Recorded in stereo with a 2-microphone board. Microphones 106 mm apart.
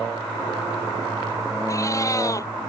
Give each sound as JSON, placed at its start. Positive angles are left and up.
{"t": 1.7, "sound": "a cat meowing", "side_deg": 30}